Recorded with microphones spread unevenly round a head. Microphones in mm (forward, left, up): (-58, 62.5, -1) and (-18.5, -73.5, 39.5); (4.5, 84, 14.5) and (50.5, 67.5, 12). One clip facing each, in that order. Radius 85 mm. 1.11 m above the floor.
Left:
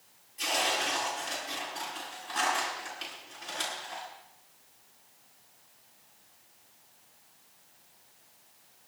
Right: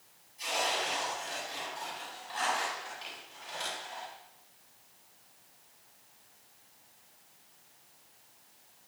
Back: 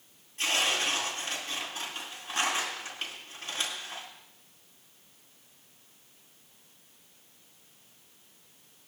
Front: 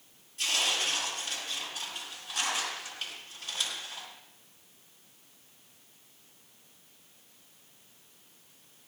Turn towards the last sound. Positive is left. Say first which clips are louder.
# left 2 dB, back 2 dB
turn(degrees=105)